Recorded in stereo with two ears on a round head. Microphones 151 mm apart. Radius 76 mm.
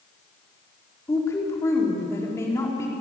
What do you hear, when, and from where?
1.1 s a woman speaking: 15° left (ahead or behind), 4 m